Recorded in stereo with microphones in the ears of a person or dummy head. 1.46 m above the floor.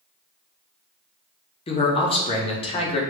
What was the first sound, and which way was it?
A man speaking, 25° left (ahead or behind).